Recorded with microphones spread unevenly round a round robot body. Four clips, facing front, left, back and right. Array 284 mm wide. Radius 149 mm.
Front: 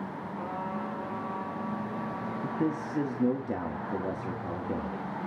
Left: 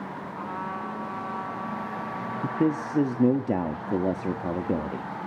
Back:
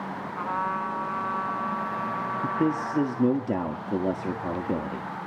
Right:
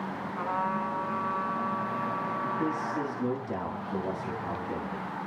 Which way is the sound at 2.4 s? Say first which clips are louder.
Left 9 dB, back 5 dB; 125° left.